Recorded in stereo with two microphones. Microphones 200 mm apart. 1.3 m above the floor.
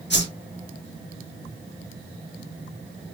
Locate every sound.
0.1 s a whoosh: 60° left (ahead or behind), 1.6 m